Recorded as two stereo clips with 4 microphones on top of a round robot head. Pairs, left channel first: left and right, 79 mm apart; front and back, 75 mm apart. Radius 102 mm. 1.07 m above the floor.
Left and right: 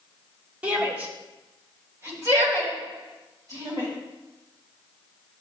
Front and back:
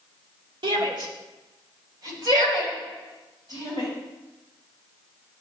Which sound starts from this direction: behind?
A shout, at 0.6 s.